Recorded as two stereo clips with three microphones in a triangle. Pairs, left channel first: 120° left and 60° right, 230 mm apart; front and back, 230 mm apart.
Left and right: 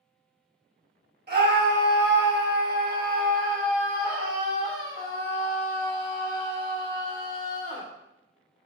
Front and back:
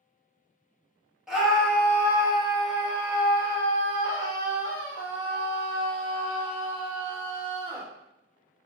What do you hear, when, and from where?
1.3 s a scream: 95° right, 1.6 m; by 7.9 s 30° left, 3.5 m